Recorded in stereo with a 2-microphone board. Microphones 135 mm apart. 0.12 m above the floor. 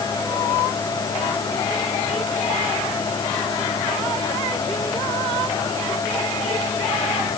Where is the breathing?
I don't hear breathing.